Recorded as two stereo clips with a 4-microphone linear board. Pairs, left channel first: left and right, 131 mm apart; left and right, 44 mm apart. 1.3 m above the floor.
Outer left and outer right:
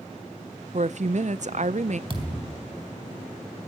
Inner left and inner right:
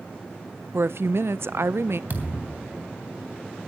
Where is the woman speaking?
65° right (ahead or behind), 0.6 m.